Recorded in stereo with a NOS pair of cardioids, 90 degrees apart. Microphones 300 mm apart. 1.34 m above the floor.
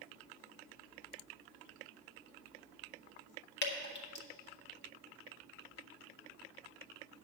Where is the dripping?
40° left, 1.6 m.